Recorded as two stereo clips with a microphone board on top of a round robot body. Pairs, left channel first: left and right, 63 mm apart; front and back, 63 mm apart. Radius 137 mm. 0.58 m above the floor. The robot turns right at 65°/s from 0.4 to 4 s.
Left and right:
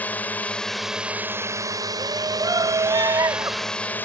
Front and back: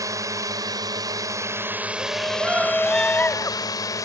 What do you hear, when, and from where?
0.0 s a drone: 155° left; by 4.1 s 25° left
2.0 s a shout: 145° right; by 3.7 s 35° right